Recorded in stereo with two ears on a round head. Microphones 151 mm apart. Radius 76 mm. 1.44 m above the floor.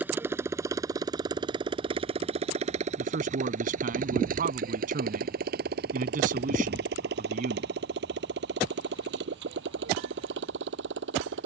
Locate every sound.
0.0 s a motorcycle: 10° right (ahead or behind); by 11.5 s 80° right
3.0 s a man speaking: 50° right (ahead or behind)